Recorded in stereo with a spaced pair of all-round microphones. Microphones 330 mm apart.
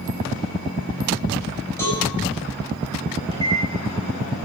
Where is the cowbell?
10° left (ahead or behind), 8.5 m.